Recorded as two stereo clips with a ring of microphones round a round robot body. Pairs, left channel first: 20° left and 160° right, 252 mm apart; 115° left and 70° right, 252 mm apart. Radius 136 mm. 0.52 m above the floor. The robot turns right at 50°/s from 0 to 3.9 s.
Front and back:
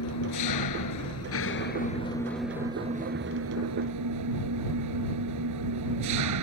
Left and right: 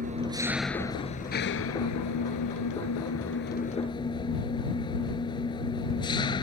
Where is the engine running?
10° right; by 6.4 s 175° right.